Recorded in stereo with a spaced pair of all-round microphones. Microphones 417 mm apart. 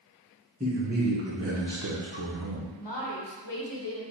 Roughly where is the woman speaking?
Left.